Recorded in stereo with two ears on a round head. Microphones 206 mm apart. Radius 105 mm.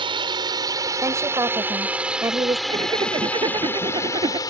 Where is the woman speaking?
15° right (ahead or behind).